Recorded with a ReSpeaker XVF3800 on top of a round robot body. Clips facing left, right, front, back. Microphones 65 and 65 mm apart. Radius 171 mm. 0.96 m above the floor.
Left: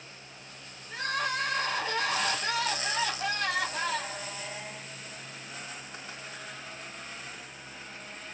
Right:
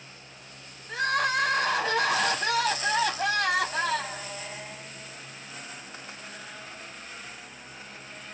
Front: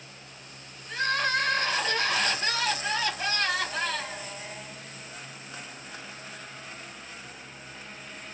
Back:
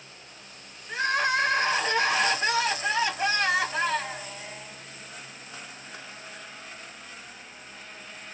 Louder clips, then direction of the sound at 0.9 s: Right 6 dB, back 2 dB; 105° right.